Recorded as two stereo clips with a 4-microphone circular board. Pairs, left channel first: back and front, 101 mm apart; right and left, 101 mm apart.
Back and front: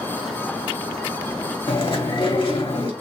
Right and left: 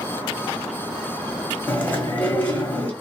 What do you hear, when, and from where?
1.7 s chewing: 160° right, 1.2 m